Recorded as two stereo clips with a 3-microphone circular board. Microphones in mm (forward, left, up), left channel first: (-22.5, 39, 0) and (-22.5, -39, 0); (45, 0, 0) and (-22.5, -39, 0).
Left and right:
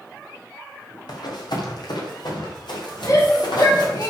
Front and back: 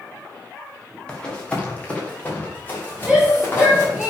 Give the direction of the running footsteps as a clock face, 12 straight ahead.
8 o'clock.